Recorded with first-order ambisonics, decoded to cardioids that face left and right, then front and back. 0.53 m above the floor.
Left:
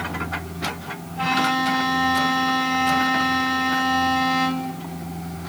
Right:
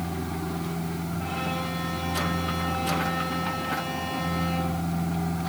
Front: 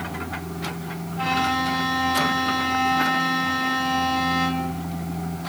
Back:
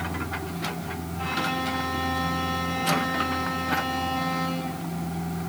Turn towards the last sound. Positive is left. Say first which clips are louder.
# left 12 dB, front 6 dB
turn(degrees=65)